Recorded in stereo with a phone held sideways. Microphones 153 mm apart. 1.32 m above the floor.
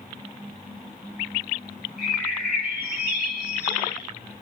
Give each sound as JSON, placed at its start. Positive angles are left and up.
{"t": 2.0, "sound": "a bird", "side_deg": -75, "distance_m": 3.0}